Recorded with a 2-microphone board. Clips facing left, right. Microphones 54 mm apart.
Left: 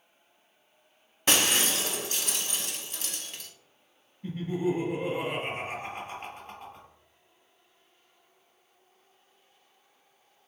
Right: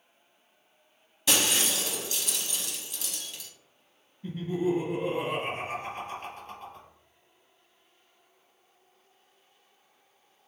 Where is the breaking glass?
40° left (ahead or behind), 0.7 m.